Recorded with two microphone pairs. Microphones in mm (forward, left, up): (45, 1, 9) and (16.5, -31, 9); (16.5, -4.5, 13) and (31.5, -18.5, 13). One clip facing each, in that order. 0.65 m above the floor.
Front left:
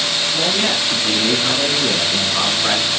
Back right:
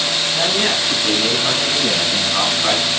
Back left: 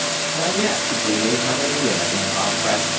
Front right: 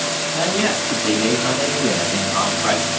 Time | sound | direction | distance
0.3 | a man speaking | 75° right | 4.5 m